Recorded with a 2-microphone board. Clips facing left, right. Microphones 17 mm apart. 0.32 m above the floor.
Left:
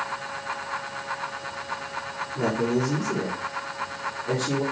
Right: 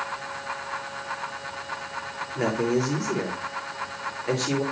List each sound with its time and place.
2.4 s a man speaking: 45° right (ahead or behind), 6 m